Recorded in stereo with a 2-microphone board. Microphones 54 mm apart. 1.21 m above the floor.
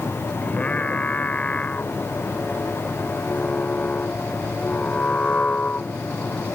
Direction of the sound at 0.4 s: 30° left (ahead or behind).